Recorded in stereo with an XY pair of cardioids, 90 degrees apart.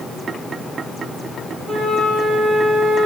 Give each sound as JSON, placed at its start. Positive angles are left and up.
{"t": 1.7, "sound": "a flute", "azimuth_deg": -55, "distance_m": 8.5}